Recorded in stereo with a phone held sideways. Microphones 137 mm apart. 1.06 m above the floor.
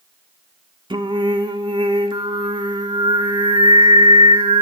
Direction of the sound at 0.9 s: 35° right (ahead or behind).